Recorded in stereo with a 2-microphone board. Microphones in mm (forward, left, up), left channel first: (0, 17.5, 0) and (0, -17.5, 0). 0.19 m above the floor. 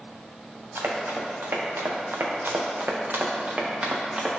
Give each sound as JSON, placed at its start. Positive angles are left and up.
{"t": 0.8, "sound": "running footsteps", "side_deg": -75, "distance_m": 2.5}